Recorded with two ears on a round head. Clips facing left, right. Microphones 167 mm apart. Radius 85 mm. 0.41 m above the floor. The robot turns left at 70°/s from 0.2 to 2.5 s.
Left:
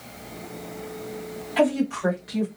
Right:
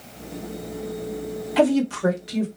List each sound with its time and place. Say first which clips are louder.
1.6 s a woman speaking: right 3 dB; 90° right, 1.1 m; by 2.5 s 155° right, 1.1 m